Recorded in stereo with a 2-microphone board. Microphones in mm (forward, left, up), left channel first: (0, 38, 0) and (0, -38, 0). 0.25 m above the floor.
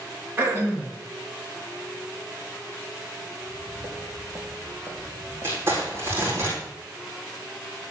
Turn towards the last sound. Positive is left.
turn(degrees=-30)  # may be behind; listen again after turning